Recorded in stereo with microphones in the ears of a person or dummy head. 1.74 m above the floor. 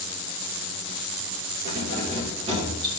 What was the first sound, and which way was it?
Keys jangling, 55° right (ahead or behind).